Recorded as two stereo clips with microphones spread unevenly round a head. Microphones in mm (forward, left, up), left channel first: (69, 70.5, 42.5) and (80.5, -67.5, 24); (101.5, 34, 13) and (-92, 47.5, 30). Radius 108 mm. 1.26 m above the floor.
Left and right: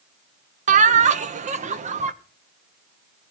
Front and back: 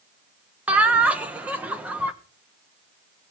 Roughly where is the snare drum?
I don't hear a snare drum.